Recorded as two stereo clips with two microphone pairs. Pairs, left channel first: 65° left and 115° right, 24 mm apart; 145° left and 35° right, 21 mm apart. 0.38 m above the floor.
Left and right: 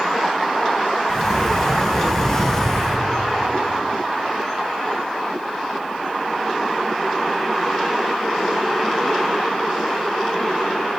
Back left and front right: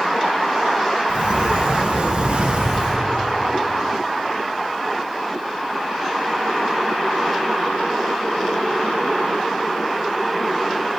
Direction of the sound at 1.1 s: 5° right.